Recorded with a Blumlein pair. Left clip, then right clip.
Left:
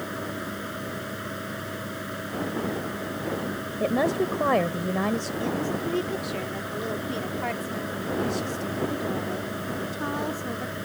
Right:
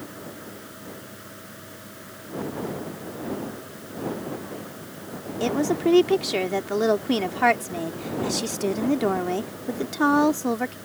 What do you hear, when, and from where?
0.0 s a fan: 25° left
3.8 s a woman speaking: 40° left
5.4 s a woman speaking: 30° right